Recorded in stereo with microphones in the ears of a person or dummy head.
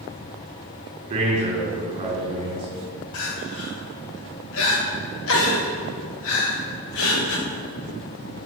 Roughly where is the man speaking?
Right.